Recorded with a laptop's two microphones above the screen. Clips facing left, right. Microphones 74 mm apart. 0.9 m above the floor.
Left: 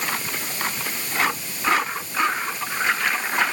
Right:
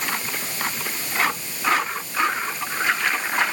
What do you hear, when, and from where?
Only background noise.